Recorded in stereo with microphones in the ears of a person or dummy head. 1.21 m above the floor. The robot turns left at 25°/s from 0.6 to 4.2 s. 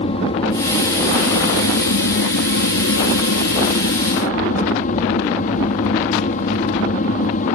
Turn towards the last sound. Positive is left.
turn(degrees=55)